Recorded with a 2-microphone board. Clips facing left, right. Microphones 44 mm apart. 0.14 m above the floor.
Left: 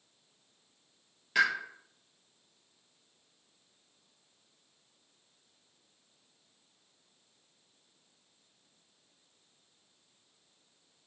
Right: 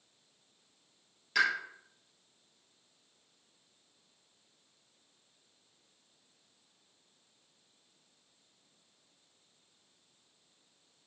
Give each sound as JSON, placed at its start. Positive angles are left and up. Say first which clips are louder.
{"t": 1.4, "sound": "a pop", "louder": "left 2 dB", "side_deg": 10, "distance_m": 2.0}